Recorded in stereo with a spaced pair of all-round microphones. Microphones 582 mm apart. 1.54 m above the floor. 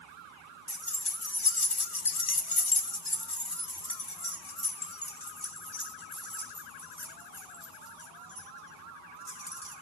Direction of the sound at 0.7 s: 35° left (ahead or behind).